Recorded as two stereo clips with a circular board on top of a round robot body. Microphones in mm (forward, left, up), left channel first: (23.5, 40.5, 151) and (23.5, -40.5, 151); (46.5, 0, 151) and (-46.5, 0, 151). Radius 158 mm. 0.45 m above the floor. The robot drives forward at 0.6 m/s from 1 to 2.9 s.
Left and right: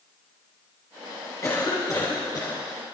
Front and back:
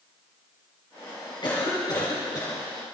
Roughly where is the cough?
Ahead left.